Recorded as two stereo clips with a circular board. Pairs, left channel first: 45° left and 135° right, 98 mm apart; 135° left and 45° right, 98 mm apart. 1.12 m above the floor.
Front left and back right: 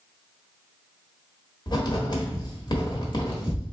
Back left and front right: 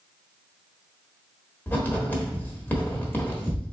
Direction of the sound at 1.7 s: 70° left.